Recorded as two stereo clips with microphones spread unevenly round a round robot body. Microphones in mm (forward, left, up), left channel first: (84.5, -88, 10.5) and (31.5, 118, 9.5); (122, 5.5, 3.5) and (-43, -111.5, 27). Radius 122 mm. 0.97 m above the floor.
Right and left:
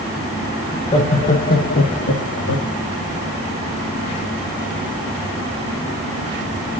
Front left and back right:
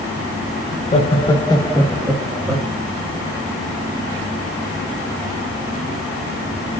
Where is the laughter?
Straight ahead, 1.5 m; by 2.7 s 75° right, 2.5 m.